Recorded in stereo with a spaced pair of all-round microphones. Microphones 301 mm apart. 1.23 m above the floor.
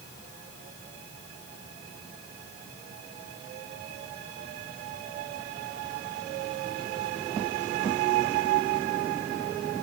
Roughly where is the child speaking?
I don't hear a child speaking.